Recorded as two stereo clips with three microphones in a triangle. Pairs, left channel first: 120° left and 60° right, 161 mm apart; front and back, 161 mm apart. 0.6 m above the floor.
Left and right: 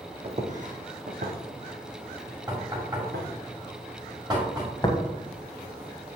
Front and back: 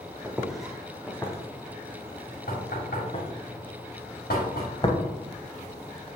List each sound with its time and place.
0.2 s footsteps: 105° right, 1.1 m; by 3.3 s 50° right, 2.5 m
2.5 s knocking: 5° left, 2 m
4.8 s tapping: 60° left, 1.0 m